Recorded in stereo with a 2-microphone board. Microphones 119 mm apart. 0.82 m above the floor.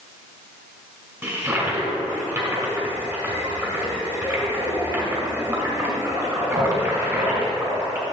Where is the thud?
I don't hear a thud.